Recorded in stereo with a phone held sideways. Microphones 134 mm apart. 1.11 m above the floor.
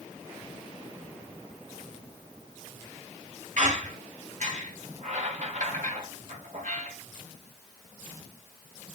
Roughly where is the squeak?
Right.